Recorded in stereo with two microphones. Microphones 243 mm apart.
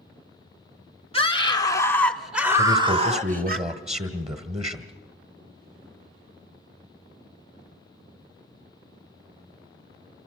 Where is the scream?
25° left (ahead or behind), 2.0 m; by 3.6 s 40° right (ahead or behind), 1.6 m.